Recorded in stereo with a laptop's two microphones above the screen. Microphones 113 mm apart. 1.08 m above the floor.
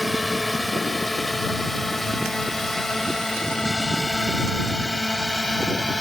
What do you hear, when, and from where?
0.0 s a drone: centre (ahead or behind); by 6.0 s 5° left (ahead or behind)